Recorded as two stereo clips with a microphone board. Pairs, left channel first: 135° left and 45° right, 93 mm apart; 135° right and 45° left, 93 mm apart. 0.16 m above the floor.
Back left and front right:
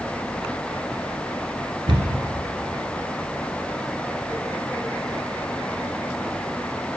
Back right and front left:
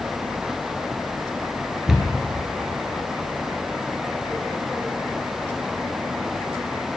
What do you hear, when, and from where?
1.9 s a cupboard door: 40° right, 0.8 m